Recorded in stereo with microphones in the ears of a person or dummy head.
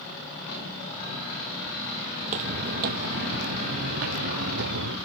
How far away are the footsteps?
About 2 m.